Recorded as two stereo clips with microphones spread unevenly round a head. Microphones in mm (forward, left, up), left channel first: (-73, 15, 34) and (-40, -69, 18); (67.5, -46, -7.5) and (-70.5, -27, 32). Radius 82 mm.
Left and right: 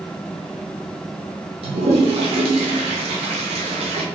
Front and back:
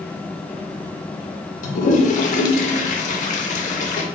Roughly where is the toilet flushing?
Ahead right.